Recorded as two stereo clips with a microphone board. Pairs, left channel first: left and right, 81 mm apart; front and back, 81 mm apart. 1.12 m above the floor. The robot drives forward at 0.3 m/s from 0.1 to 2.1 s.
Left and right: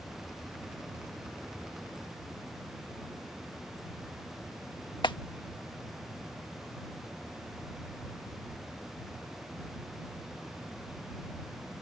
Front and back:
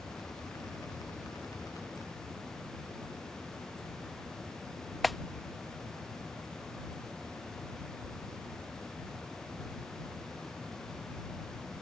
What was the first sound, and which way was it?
A clap, 90° left.